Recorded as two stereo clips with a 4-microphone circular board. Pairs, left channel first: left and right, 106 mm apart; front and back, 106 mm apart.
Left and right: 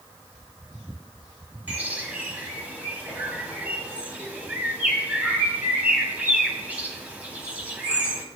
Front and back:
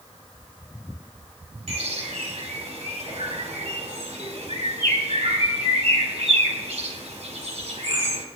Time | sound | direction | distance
1.7 | a bird | 165° right | 2.0 m